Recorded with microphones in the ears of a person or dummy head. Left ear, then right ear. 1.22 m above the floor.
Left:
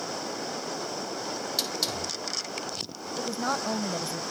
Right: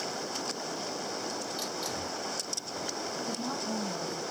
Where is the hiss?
35° left (ahead or behind), 4.5 m.